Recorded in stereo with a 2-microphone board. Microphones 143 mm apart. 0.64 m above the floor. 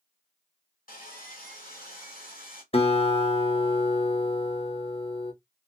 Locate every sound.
0.9 s sawing: 75° left (ahead or behind), 1.4 m
2.7 s a guitar: 45° left (ahead or behind), 0.6 m